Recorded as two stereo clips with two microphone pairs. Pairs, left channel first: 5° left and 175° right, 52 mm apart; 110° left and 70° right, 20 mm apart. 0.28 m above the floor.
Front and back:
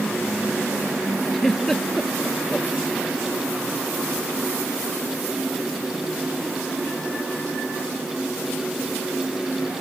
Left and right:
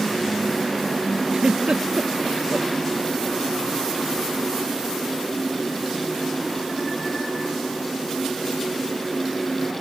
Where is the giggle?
80° right.